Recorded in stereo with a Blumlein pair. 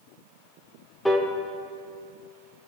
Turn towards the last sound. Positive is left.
turn(degrees=5)